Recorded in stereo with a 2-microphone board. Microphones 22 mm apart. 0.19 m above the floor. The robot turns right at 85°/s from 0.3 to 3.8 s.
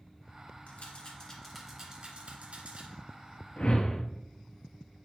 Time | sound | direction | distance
0.7 | a rattle | 60° left (ahead or behind) | 2 m
3.6 | a whoosh | 45° left (ahead or behind) | 1.0 m